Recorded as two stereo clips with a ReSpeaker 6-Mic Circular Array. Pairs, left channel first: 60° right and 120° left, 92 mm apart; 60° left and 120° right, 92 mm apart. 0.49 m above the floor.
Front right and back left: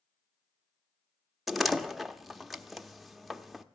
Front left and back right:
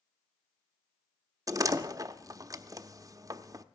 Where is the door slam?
150° right, 0.6 m.